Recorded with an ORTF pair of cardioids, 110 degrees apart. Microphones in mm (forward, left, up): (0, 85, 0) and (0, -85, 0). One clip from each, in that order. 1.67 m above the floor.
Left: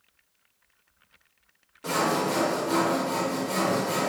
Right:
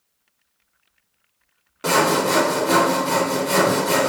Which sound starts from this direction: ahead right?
Sawing, at 1.8 s.